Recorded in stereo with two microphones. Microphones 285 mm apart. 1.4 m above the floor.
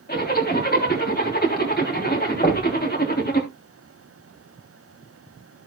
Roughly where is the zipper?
Left.